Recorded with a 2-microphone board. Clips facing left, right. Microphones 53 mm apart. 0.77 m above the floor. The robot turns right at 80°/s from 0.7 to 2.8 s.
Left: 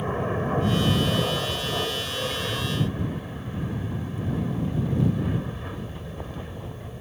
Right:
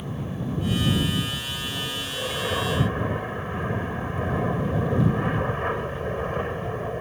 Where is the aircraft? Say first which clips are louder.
Left 5 dB; 45° left (ahead or behind); by 7.0 s 50° right (ahead or behind).